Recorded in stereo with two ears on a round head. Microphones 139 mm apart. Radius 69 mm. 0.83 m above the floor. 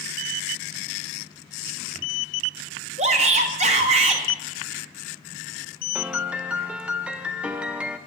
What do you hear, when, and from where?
3.0 s a shout: 45° right (ahead or behind), 1.1 m
6.0 s a piano: 10° right (ahead or behind), 0.5 m